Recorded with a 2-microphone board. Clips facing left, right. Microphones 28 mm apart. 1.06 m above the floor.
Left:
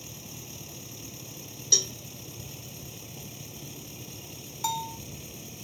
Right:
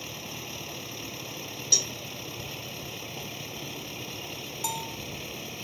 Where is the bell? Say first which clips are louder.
Left 4 dB; 15° left (ahead or behind).